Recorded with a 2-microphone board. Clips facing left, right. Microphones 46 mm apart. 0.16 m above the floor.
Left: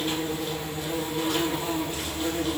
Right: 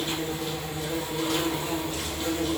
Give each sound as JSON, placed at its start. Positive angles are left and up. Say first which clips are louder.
{"t": 0.0, "sound": "an insect", "louder": "left 1 dB", "side_deg": 25, "distance_m": 1.2}